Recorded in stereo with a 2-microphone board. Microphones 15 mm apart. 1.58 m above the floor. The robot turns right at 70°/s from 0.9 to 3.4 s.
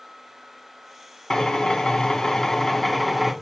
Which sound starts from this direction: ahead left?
A drill, at 1.3 s.